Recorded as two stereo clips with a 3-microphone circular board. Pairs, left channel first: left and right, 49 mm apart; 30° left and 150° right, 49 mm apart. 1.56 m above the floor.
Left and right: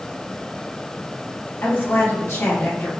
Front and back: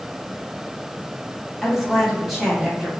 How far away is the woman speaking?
About 1.9 m.